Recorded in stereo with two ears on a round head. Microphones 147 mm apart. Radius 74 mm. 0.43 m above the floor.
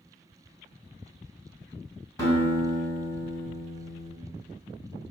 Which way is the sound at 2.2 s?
20° left (ahead or behind).